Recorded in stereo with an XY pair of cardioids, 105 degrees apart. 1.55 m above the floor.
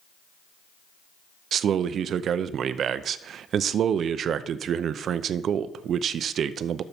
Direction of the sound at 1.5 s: 60° right.